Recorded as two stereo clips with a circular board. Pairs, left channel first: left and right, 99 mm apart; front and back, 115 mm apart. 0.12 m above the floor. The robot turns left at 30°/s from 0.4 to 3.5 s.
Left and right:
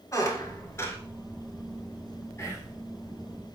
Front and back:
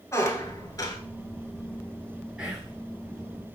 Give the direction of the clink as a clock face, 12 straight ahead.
No clink in this recording.